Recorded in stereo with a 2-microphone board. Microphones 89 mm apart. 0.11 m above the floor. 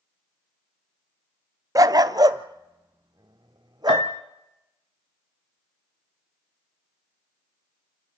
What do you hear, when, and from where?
1.8 s a dog barking: 40° right (ahead or behind), 0.5 m; by 4.1 s 50° right (ahead or behind), 2 m
3.9 s a piano: 65° left (ahead or behind), 0.9 m